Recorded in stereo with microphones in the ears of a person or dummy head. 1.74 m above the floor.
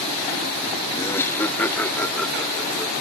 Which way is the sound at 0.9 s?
20° left (ahead or behind).